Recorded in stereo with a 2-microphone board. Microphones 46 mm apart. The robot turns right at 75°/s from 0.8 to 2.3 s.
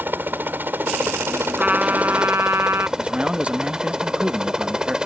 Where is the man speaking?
25° right (ahead or behind).